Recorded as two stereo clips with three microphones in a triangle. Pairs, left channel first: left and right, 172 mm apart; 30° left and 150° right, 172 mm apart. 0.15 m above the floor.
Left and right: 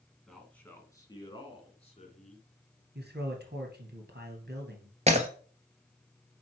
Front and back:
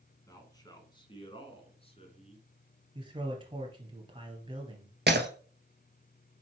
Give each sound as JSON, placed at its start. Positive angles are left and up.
{"t": 0.3, "sound": "a man speaking", "azimuth_deg": 5, "distance_m": 1.4}
{"t": 3.0, "sound": "a man speaking", "azimuth_deg": -90, "distance_m": 2.5}
{"t": 5.1, "sound": "breaking glass", "azimuth_deg": -140, "distance_m": 1.1}